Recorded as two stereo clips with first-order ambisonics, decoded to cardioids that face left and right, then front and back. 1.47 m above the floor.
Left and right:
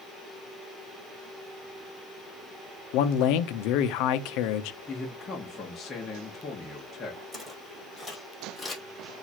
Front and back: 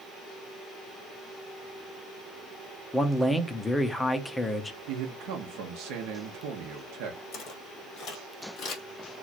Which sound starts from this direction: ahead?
Footsteps, at 7.3 s.